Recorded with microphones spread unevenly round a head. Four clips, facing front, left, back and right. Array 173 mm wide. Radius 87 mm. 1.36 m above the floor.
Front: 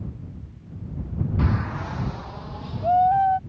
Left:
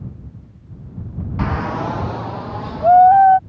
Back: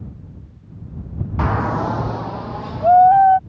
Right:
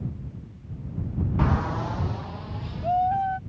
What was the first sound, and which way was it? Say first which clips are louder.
A shout: left 6 dB, back 10 dB; 170° left.